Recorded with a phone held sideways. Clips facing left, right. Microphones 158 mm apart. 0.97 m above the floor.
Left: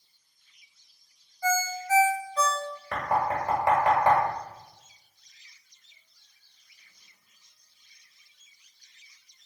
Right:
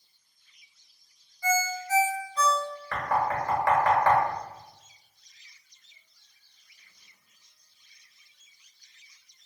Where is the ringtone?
45° left (ahead or behind), 0.9 m.